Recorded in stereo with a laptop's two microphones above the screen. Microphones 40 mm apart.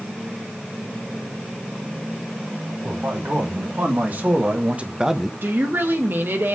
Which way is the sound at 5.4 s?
60° right (ahead or behind).